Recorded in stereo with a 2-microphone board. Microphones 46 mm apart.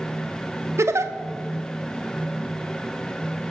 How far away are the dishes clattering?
No dishes clattering in this recording.